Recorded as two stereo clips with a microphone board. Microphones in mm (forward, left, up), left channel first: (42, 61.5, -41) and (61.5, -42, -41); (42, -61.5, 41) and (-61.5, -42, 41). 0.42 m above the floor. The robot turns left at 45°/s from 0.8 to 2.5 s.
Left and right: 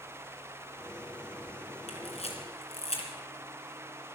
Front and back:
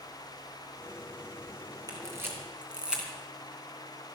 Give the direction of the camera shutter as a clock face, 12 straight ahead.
8 o'clock.